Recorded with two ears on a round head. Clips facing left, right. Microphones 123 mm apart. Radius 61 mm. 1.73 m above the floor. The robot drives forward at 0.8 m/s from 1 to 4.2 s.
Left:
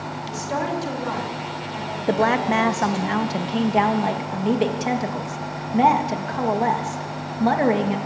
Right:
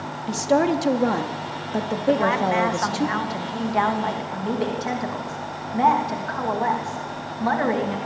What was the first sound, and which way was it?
A woman speaking, 60° right (ahead or behind).